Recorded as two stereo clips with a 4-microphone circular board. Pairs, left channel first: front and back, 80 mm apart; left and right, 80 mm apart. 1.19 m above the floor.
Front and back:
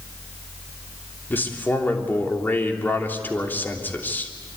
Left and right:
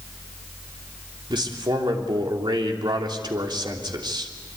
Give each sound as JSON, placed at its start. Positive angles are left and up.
{"t": 1.3, "sound": "a man speaking", "azimuth_deg": -65, "distance_m": 3.0}